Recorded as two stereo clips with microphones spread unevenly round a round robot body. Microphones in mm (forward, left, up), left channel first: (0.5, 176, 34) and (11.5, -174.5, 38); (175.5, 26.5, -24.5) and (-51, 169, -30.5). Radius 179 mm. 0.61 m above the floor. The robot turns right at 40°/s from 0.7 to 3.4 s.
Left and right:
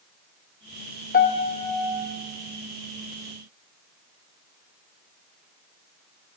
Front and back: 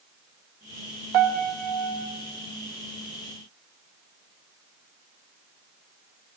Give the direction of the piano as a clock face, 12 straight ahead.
7 o'clock.